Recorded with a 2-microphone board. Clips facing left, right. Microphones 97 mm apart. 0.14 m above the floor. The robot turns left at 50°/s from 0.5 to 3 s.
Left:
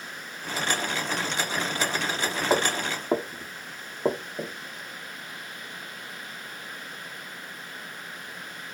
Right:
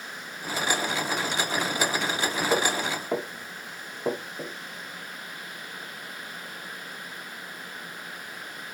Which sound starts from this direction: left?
Footsteps, at 2.5 s.